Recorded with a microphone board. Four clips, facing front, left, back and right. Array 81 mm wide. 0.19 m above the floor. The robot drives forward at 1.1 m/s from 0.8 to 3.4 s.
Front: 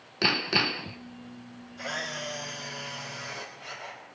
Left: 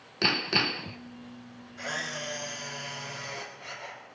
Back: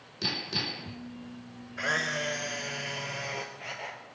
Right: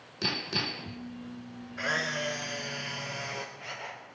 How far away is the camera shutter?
About 2 m.